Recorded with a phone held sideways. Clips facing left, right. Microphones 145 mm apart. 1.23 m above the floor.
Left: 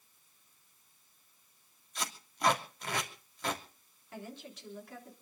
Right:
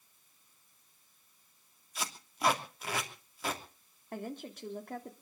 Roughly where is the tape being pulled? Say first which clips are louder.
Even; centre.